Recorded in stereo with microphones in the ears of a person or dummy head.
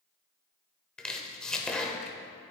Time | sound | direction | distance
1.0 | chopping | 5° left (ahead or behind) | 0.7 m